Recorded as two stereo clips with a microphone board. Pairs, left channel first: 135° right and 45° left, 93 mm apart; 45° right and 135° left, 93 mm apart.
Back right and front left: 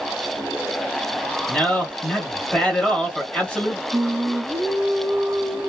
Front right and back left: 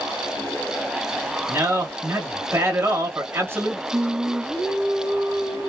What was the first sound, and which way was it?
A man speaking, 155° left.